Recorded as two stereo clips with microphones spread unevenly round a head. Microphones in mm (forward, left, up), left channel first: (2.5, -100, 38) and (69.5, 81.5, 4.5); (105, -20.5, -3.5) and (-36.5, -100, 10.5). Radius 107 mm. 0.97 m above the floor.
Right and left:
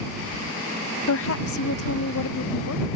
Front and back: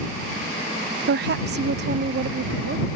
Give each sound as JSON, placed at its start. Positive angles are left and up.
{"t": 1.1, "sound": "a woman speaking", "azimuth_deg": -140}